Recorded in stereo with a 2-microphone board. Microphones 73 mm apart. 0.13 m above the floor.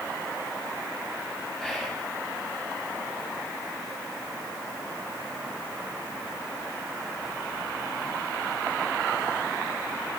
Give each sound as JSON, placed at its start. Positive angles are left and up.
{"t": 1.6, "sound": "whispering", "side_deg": -5, "distance_m": 1.8}